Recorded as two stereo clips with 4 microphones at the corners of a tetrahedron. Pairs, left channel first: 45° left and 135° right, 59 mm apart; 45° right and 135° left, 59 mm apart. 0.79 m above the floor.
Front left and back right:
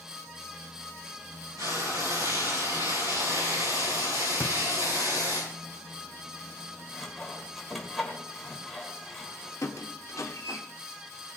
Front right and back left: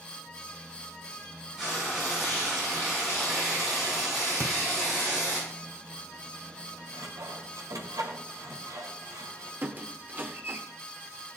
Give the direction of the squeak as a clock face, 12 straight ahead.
9 o'clock.